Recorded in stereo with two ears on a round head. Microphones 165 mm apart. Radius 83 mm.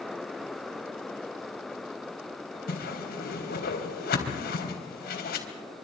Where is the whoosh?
60° left (ahead or behind), 3.5 m.